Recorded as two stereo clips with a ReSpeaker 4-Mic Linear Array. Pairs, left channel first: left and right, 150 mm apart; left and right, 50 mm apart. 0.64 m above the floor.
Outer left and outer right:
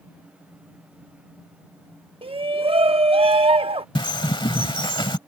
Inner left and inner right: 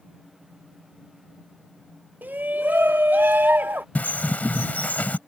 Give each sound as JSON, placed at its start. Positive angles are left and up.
{"t": 2.2, "sound": "a shout", "side_deg": -40}
{"t": 4.0, "sound": "a bird", "side_deg": 35}